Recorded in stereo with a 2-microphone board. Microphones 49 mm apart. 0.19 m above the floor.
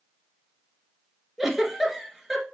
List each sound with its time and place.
1.4 s a giggle: 5° right (ahead or behind), 1.4 m